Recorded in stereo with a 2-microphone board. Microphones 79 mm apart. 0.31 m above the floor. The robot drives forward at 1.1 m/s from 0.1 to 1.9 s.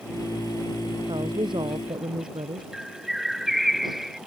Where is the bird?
Centre (ahead or behind).